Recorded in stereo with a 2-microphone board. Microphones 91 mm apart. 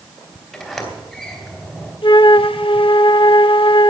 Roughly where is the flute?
Left.